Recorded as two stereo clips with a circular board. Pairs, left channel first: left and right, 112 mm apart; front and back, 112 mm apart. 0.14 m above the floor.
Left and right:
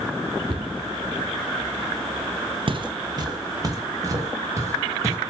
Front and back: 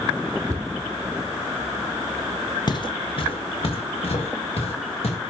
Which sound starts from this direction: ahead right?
Footsteps, at 2.7 s.